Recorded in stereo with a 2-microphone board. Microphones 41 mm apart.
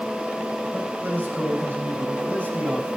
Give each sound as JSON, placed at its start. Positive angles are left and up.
{"t": 0.7, "sound": "a man speaking", "side_deg": -50, "distance_m": 6.5}